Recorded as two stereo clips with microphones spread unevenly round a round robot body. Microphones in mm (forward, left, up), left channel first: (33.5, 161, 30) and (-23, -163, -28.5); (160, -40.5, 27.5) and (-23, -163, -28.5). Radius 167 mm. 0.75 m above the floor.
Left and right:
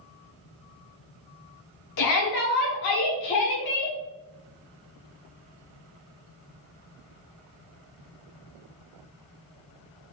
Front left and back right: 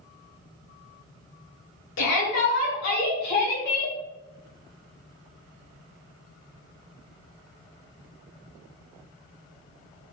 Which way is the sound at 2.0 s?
45° left.